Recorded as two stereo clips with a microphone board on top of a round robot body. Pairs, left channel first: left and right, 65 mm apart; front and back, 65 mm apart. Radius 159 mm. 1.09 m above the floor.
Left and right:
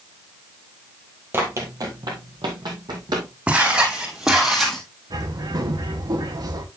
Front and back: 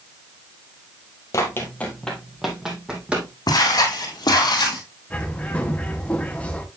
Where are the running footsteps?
35° right, 1.5 m; by 3.3 s 110° right, 3 m.